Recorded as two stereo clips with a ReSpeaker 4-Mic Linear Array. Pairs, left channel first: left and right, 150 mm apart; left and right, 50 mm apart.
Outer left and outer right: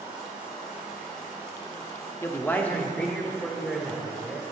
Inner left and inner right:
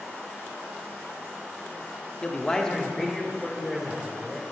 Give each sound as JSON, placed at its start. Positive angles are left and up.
{"t": 2.2, "sound": "a man speaking", "side_deg": 20, "distance_m": 0.8}